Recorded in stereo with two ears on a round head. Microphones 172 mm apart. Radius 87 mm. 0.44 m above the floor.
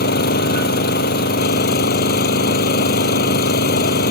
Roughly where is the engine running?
Left.